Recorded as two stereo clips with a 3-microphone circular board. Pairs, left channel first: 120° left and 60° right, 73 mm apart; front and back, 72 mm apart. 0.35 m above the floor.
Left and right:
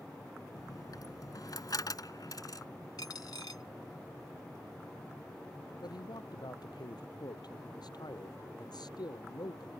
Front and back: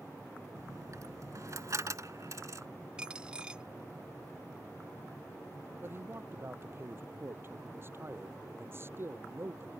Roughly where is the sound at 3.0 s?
Left.